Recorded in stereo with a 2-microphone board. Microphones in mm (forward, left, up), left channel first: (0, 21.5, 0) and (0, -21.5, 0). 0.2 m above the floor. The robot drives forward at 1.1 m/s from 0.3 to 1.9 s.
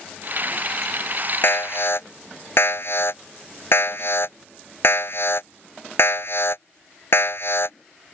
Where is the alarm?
55° left (ahead or behind); by 7.8 s 60° left (ahead or behind).